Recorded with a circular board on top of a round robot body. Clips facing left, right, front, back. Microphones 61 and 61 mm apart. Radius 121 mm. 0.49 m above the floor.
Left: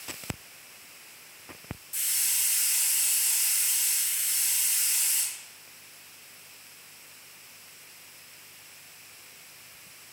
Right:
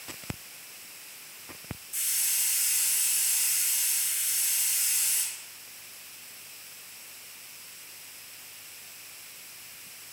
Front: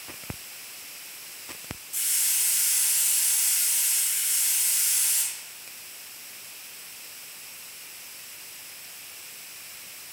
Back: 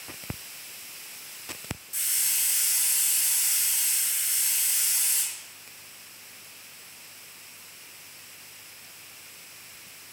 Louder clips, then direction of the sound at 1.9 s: Left 2 dB, even; 130° left.